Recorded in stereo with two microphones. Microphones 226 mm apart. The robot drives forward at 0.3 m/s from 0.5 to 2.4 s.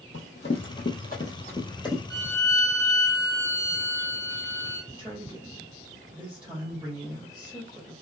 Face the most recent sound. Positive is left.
turn(degrees=-5)  # may be behind; listen again after turning